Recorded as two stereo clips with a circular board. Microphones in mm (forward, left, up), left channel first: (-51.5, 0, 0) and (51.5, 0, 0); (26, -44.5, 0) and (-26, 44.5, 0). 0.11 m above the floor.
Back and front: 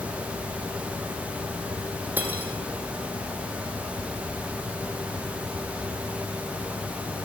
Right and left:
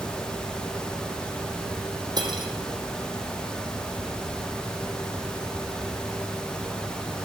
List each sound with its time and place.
2.2 s cutlery clinking: 75° left, 3 m